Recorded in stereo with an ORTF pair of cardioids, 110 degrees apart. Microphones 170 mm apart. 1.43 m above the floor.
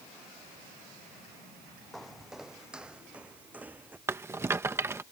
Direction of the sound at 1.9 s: Straight ahead.